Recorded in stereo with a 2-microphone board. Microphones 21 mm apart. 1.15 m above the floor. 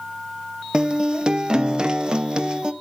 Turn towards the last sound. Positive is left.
turn(degrees=-35)  # may be behind; listen again after turning